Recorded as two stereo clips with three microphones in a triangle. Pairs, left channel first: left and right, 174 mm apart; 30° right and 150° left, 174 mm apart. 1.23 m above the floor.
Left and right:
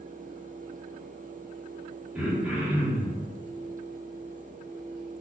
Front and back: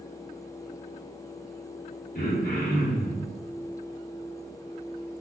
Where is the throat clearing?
5° right, 1.2 m.